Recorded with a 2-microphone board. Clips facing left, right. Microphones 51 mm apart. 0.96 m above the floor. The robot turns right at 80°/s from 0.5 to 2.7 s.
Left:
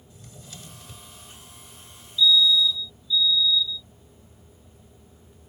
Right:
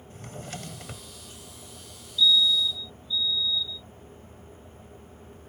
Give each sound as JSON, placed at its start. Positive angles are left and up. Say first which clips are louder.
{"t": 0.1, "sound": "a drawer", "louder": "right 8 dB", "azimuth_deg": -120}
{"t": 2.2, "sound": "a fire alarm", "louder": "left 3 dB", "azimuth_deg": -160}